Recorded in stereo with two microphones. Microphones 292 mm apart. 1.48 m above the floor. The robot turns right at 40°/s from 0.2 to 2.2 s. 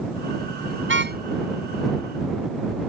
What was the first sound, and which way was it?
A car horn, 45° right (ahead or behind).